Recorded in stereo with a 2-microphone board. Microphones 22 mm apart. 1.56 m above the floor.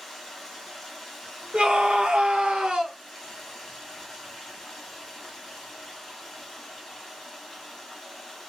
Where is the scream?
75° right (ahead or behind), 0.7 m.